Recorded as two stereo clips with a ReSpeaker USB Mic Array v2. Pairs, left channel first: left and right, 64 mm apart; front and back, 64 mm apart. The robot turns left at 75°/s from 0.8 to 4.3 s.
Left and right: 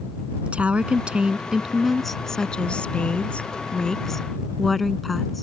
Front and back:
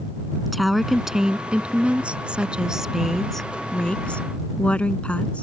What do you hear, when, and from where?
0.5 s a woman speaking: 95° right; by 5.4 s 5° left